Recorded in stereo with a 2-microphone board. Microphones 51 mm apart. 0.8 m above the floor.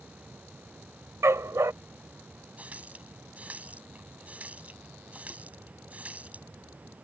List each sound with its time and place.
1.2 s a dog barking: 70° right (ahead or behind)
2.6 s a running tap: 30° right (ahead or behind)